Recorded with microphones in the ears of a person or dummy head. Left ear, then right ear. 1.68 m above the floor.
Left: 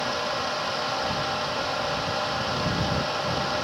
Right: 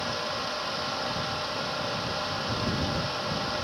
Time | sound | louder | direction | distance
0.0 | a fan | left 4 dB | 10° left (ahead or behind) | ?